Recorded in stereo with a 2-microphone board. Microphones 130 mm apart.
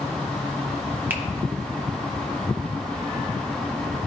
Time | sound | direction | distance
1.1 | a finger snap | 15° right (ahead or behind) | 0.7 m